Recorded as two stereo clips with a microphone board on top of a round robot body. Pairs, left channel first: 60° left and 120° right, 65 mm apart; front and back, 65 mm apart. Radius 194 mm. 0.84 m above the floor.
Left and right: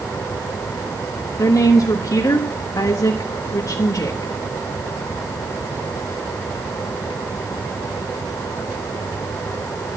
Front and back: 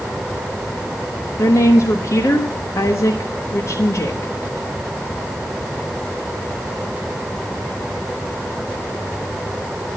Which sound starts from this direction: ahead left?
A woman speaking, at 1.4 s.